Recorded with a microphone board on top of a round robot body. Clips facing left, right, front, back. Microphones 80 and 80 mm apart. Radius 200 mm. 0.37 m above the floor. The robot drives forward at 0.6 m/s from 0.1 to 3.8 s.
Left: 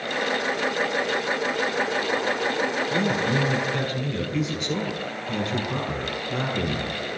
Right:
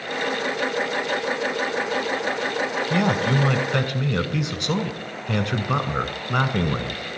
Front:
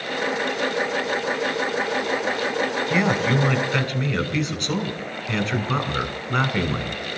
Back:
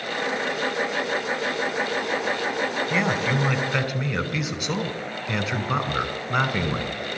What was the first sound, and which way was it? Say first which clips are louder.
A man speaking: right 5 dB, front 4 dB; 90° right.